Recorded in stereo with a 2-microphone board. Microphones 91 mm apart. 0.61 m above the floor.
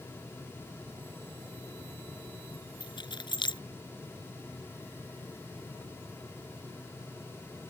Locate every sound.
2.8 s keys jangling: 55° left (ahead or behind)